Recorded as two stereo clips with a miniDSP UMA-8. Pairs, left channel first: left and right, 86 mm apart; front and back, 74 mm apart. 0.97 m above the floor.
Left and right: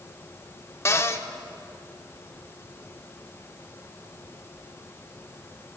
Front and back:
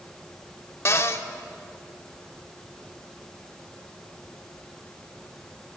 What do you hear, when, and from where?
0.8 s a cupboard door: 40° left, 0.8 m